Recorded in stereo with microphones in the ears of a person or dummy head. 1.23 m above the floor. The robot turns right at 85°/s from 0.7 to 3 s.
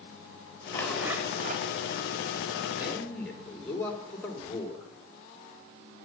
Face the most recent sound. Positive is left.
turn(degrees=10)  # may be behind; listen again after turning